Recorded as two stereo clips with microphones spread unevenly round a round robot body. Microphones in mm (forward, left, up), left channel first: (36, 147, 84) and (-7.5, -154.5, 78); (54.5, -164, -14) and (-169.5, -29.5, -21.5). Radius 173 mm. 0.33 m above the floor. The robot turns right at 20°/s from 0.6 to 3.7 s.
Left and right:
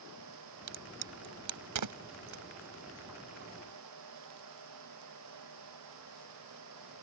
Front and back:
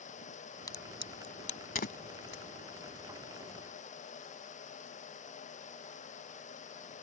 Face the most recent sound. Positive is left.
turn(degrees=-45)